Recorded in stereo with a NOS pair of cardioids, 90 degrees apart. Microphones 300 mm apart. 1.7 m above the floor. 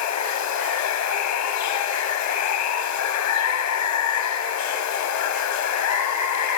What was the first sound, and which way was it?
Running water, 70° left.